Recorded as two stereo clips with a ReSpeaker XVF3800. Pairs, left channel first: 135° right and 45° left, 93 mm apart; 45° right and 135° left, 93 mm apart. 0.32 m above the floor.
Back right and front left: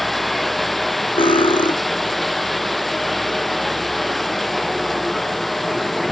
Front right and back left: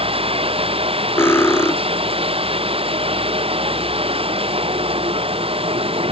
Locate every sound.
0.0 s running water: 135° left
1.2 s cutlery clinking: 110° right